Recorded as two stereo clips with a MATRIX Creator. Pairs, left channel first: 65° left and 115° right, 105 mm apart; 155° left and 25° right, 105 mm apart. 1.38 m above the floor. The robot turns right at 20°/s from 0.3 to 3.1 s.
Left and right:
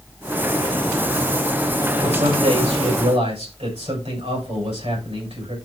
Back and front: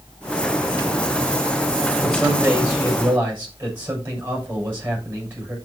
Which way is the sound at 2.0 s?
115° right.